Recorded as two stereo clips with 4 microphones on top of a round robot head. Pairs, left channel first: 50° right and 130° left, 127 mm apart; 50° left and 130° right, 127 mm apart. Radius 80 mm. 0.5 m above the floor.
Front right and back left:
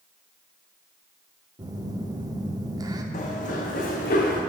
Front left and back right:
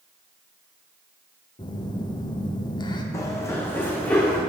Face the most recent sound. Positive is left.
turn(degrees=-35)